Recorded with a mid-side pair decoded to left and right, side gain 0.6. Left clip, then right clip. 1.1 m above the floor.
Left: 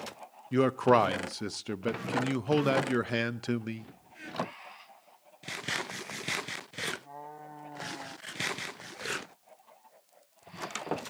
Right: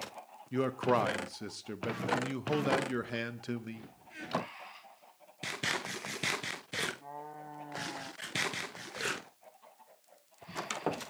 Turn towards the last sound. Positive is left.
turn(degrees=30)